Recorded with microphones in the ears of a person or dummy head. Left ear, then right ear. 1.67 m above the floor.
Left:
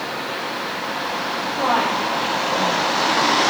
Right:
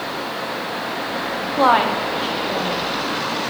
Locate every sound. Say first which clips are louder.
1.6 s a woman speaking: right 5 dB; 75° right (ahead or behind), 0.6 m; by 2.8 s 45° right (ahead or behind), 1.4 m